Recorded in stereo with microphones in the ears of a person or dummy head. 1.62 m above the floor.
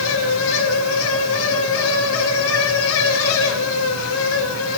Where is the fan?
75° left (ahead or behind), 2 m.